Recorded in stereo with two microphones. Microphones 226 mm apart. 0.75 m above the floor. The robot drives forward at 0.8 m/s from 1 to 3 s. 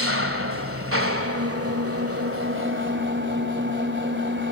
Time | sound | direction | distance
0.0 | an engine running | 70° right (ahead or behind) | 1.6 m